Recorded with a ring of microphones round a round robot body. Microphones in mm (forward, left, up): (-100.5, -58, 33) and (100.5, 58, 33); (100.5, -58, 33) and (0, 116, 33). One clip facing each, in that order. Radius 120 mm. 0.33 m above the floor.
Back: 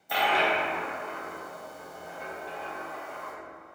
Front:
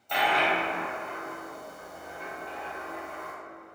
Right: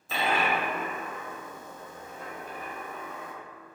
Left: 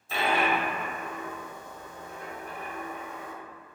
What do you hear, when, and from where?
0.1 s a dropped coin: 65° right, 0.7 m